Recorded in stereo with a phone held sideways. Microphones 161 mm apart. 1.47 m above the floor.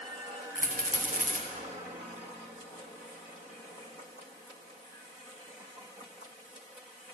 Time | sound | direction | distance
0.6 | a rattle | 60° right (ahead or behind) | 1.5 m